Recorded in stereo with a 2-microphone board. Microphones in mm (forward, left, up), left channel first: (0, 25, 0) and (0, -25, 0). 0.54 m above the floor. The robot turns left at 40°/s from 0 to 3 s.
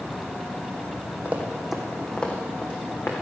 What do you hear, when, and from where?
1.2 s running footsteps: 30° right (ahead or behind), 1.8 m; by 3.1 s 55° left (ahead or behind), 3 m